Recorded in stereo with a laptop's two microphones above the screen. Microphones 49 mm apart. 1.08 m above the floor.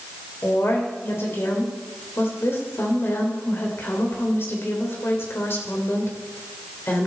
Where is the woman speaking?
55° left (ahead or behind), 3.5 m.